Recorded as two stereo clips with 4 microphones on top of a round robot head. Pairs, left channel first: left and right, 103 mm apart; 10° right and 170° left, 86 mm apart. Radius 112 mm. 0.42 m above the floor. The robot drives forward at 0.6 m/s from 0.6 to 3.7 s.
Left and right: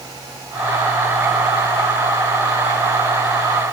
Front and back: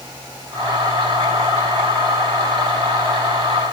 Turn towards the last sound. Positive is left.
No sound to turn to.